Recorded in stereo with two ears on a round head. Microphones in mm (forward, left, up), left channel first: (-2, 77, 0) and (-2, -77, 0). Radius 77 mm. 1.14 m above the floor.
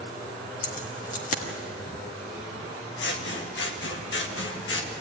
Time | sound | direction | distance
0.6 | keys jangling | 50° left (ahead or behind) | 1.5 m
3.0 | scissors | 70° left (ahead or behind) | 1.6 m